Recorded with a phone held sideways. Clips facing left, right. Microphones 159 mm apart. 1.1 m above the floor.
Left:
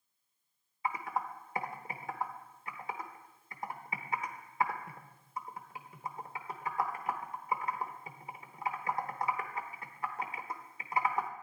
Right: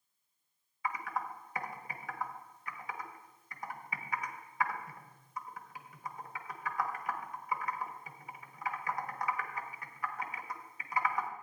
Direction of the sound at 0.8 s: 25° left (ahead or behind).